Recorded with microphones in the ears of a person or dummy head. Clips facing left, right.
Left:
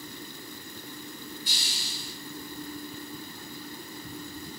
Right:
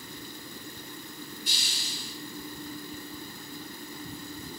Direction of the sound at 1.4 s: 40° left (ahead or behind).